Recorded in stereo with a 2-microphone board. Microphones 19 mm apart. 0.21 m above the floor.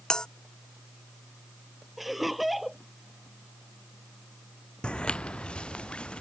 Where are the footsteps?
80° left; by 6.2 s 85° left.